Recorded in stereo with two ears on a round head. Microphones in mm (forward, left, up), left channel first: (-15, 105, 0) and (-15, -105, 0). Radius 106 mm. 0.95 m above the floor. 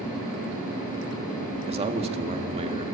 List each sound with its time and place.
1.7 s a man speaking: 25° right (ahead or behind), 1.7 m; by 2.9 s 30° right (ahead or behind), 3 m